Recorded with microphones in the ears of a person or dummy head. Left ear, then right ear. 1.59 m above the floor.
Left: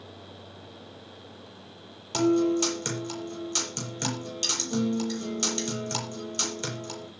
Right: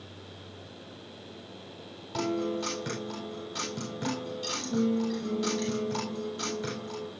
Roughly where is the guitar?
Left.